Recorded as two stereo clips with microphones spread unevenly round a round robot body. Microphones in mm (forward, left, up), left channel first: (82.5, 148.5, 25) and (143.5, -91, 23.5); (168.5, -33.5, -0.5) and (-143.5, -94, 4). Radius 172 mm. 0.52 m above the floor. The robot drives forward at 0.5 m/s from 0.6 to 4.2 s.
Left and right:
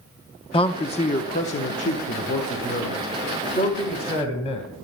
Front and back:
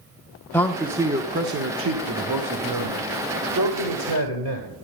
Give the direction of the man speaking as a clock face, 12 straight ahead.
9 o'clock.